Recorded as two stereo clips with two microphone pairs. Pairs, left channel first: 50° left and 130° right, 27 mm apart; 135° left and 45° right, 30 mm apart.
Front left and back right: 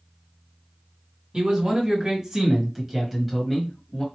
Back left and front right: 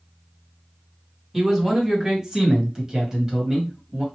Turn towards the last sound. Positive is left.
turn(degrees=-10)